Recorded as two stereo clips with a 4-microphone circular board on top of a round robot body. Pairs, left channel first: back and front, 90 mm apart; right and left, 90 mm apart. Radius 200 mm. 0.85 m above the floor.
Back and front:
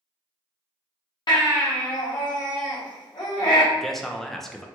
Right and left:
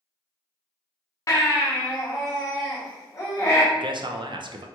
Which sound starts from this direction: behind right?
A baby crying, at 1.3 s.